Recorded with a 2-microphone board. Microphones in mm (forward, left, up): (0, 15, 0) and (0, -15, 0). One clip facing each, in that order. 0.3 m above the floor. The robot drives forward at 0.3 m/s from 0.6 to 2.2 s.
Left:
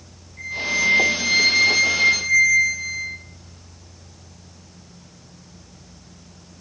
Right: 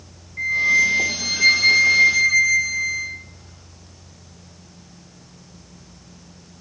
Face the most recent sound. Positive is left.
turn(degrees=-30)  # may be behind; listen again after turning